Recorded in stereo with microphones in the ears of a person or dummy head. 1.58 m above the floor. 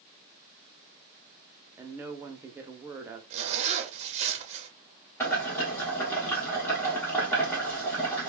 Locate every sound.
1.8 s a woman speaking: 15° right (ahead or behind), 0.6 m
3.3 s a zipper: 35° right (ahead or behind), 0.6 m
5.2 s boiling: 15° left (ahead or behind), 1.2 m